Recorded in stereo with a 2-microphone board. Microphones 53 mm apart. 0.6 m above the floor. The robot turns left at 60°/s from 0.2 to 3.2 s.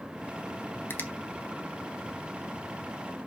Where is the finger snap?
45° left (ahead or behind), 1.2 m; by 1.1 s 35° left (ahead or behind), 1.2 m.